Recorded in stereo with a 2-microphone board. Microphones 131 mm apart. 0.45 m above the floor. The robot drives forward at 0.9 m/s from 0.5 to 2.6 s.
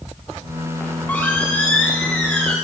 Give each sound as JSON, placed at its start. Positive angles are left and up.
{"t": 0.8, "sound": "a squeak", "side_deg": 15, "distance_m": 6.0}